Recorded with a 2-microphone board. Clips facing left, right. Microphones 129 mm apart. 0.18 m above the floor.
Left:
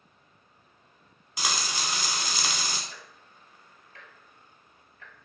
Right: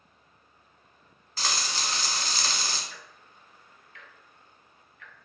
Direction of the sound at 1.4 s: 15° left (ahead or behind).